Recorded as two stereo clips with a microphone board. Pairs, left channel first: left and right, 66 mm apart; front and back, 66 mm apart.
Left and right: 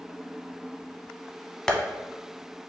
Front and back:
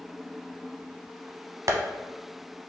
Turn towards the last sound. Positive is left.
turn(degrees=165)